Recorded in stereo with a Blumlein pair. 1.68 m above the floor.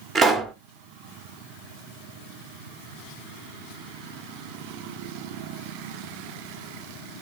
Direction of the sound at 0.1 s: 20° right.